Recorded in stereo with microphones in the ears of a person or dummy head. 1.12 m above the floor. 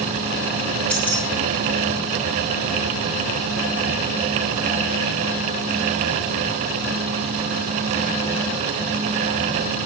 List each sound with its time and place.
0.9 s keys jangling: 5° left (ahead or behind), 1.5 m